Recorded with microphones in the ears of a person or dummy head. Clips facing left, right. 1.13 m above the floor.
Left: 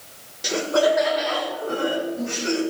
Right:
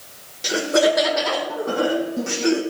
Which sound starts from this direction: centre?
Laughter, at 0.4 s.